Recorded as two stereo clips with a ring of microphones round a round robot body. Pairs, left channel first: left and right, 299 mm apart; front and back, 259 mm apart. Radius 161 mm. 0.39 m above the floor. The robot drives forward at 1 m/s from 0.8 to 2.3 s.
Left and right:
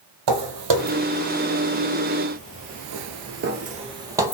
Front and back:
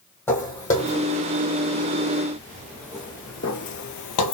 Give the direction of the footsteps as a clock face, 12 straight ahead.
3 o'clock.